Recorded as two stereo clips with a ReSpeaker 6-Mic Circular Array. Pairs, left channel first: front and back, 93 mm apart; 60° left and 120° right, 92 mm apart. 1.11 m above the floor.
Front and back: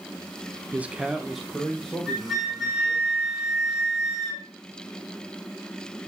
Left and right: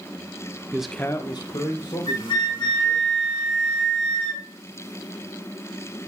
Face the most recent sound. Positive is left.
turn(degrees=95)